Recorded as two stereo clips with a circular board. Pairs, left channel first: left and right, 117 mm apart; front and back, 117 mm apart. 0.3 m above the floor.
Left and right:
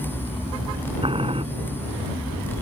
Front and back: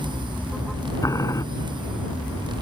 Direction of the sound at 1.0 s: 60° right.